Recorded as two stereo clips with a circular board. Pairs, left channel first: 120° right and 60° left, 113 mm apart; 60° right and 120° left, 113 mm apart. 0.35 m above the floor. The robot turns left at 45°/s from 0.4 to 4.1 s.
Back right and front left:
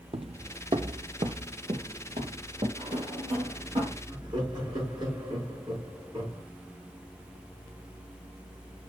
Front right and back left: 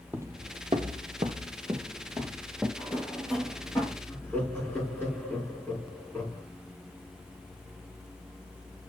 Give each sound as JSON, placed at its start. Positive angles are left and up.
{"t": 0.1, "sound": "footsteps", "azimuth_deg": 50, "distance_m": 0.6}
{"t": 2.8, "sound": "a drawer", "azimuth_deg": 60, "distance_m": 4.5}
{"t": 4.1, "sound": "laughter", "azimuth_deg": 10, "distance_m": 6.0}